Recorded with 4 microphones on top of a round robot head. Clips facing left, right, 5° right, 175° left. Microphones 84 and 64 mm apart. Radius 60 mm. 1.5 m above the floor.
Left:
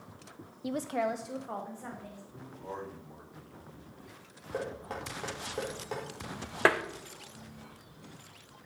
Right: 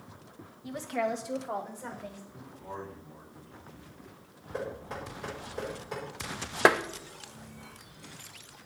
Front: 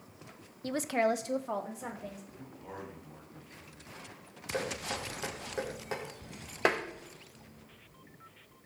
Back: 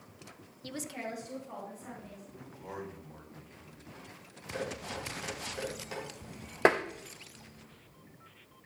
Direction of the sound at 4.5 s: 45° left.